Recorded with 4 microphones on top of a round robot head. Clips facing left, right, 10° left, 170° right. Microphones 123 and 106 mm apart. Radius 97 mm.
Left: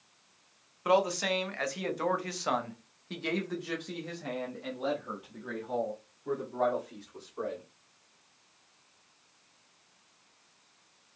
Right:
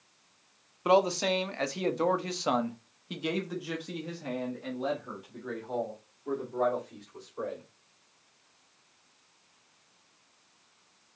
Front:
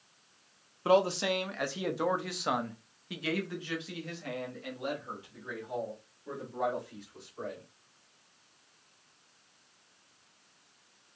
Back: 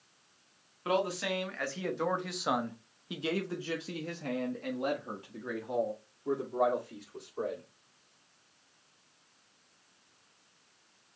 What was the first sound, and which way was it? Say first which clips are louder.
A man speaking: right 2 dB, front 5 dB; 35° right.